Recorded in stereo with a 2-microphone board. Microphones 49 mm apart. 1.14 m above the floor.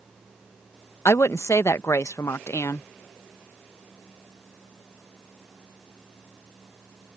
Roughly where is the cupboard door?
No cupboard door in this recording.